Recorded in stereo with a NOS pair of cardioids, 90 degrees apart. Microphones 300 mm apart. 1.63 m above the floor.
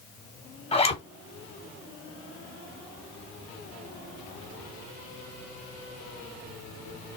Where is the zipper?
20° left, 1.3 m.